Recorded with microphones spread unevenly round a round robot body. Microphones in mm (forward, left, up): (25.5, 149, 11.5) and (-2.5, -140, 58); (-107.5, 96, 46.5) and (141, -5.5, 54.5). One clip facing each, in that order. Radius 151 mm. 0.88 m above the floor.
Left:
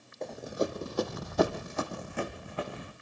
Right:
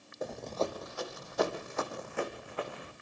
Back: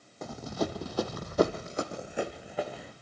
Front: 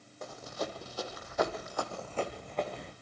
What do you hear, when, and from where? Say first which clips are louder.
0.2 s running footsteps: left 2 dB, back 6 dB; 175° right, 1.6 m; by 2.9 s 70° left, 3 m